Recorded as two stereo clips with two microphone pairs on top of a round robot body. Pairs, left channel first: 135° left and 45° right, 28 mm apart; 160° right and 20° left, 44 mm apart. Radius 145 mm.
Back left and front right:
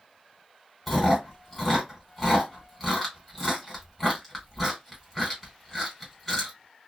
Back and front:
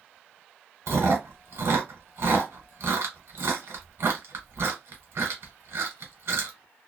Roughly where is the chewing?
Ahead left.